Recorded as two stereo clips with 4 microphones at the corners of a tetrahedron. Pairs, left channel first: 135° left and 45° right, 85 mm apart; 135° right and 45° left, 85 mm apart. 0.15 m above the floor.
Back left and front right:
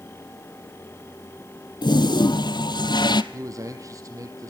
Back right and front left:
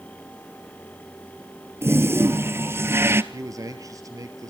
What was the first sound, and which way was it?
A toilet flushing, 105° left.